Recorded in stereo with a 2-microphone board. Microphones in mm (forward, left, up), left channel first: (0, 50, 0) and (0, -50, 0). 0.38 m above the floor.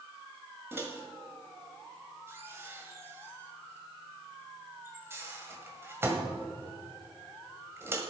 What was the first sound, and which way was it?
A microwave, 25° right (ahead or behind).